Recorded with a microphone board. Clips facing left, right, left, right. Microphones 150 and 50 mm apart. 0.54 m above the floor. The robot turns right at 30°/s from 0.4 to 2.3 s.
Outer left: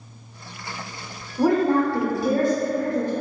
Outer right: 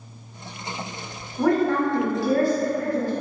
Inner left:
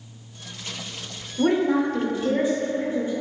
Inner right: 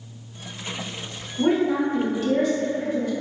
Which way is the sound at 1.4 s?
15° left (ahead or behind).